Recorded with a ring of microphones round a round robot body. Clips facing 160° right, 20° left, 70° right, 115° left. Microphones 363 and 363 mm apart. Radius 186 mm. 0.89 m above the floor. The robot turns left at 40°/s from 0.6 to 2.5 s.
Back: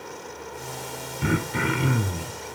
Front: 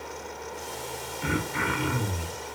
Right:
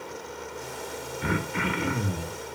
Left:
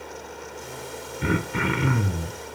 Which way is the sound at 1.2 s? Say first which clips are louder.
Back 5 dB, left 4 dB; 165° left.